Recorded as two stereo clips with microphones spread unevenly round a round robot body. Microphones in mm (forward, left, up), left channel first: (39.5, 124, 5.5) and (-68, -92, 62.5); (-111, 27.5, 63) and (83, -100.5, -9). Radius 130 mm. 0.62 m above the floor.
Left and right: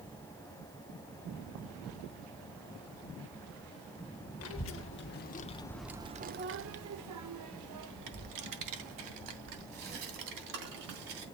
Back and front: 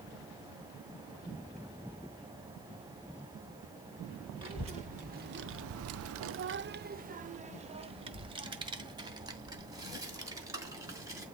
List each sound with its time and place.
4.4 s a child speaking: 35° left, 1.1 m; by 11.2 s 110° right, 3.5 m